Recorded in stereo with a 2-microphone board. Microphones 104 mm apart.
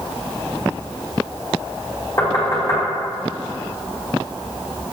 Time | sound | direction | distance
2.2 | knocking | 30° left (ahead or behind) | 1.0 m